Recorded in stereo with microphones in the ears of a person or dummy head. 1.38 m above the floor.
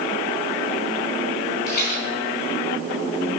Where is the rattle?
65° left (ahead or behind), 1.9 m.